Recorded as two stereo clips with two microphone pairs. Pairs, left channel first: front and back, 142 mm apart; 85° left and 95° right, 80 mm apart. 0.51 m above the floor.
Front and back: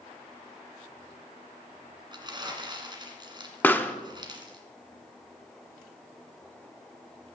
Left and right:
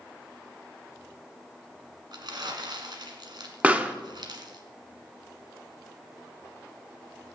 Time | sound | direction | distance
2.1 | crumpling | 120° right | 2 m
3.6 | a pop | 60° right | 0.8 m